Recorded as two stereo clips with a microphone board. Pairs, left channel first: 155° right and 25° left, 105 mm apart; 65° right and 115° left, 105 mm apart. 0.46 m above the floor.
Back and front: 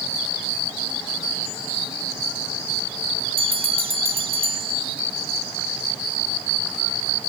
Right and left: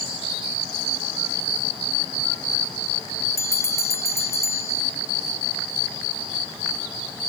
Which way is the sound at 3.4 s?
5° right.